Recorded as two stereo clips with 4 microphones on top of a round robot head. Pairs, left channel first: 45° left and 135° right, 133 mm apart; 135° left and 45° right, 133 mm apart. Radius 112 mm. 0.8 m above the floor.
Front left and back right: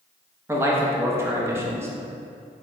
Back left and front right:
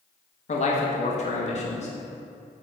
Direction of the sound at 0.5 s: 155° left.